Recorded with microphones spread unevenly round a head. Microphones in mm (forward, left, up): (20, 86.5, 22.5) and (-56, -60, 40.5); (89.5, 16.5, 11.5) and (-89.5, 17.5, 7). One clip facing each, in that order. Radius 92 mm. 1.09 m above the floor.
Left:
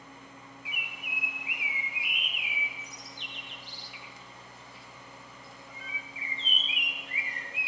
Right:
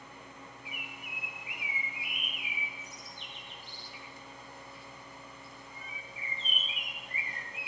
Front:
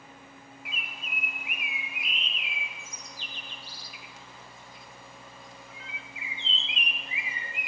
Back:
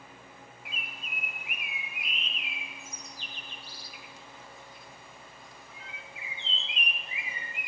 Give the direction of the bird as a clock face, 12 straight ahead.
11 o'clock.